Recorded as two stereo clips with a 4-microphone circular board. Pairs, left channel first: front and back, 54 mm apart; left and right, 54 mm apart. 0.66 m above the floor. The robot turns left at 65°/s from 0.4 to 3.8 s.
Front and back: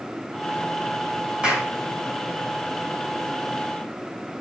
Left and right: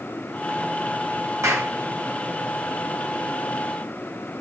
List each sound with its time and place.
1.4 s a clap: 110° right, 4 m; by 1.7 s 125° right, 4 m